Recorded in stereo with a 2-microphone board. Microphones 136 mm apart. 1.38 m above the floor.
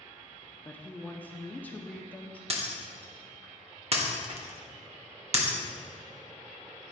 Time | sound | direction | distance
0.7 | a woman speaking | 10° left (ahead or behind) | 0.6 m
2.5 | breaking glass | 50° right (ahead or behind) | 1.1 m